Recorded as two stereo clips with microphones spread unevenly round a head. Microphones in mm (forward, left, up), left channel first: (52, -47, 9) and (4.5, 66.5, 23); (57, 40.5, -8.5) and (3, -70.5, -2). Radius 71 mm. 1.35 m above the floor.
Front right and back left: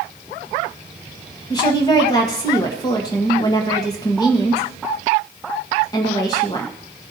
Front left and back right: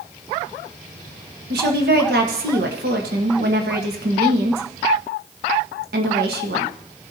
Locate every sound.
1.5 s a woman speaking: 135° right, 1.5 m